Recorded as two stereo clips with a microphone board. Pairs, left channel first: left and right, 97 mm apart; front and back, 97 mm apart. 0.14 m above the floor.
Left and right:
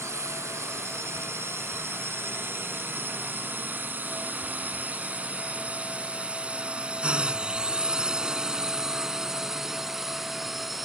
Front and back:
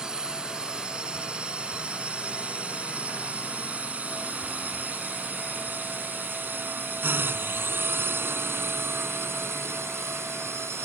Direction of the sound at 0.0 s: 110° right.